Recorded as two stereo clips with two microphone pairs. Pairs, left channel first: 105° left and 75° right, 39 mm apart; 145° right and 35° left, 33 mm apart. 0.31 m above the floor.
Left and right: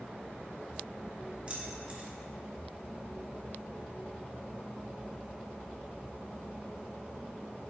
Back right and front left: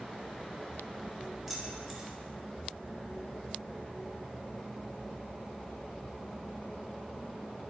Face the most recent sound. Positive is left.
turn(degrees=-45)